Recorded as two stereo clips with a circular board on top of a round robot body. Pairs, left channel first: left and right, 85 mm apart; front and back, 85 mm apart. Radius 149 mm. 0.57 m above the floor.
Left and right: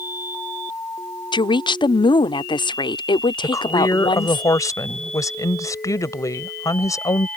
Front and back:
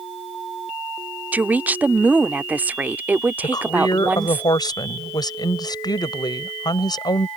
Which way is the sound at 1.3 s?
110° left.